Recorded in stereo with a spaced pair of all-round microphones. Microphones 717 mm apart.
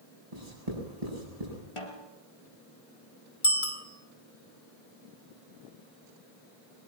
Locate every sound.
0.3 s writing: 55° right (ahead or behind), 8.5 m
1.8 s a snare drum: 45° left (ahead or behind), 3.5 m
3.4 s a bicycle bell: 40° left (ahead or behind), 3 m